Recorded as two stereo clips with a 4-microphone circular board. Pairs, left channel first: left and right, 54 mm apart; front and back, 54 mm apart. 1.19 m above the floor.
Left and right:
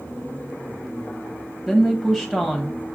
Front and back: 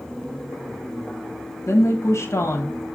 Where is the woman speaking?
15° left, 1.4 m.